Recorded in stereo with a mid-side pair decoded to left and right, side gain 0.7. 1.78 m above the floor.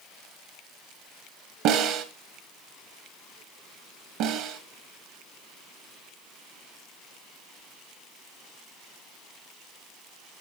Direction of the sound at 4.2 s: 65° right.